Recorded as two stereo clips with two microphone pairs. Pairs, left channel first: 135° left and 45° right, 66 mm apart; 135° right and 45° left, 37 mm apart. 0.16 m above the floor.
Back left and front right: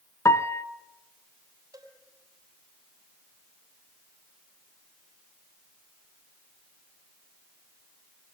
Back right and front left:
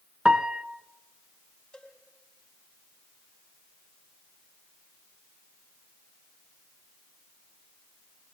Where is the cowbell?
65° right, 4.5 m.